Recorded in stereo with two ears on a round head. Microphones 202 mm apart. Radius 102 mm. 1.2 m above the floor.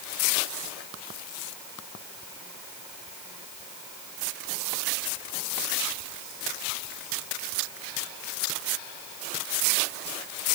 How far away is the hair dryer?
I don't hear a hair dryer.